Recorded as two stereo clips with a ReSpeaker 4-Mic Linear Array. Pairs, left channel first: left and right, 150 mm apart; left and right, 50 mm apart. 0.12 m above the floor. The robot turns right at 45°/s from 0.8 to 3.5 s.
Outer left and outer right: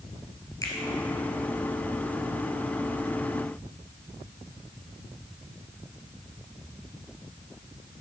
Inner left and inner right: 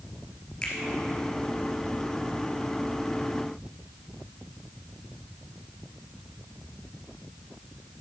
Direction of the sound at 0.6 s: 25° left (ahead or behind).